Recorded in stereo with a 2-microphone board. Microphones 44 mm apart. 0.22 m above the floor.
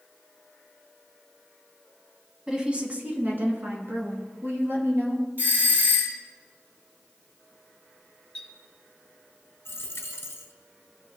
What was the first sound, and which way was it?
A woman speaking, 15° right (ahead or behind).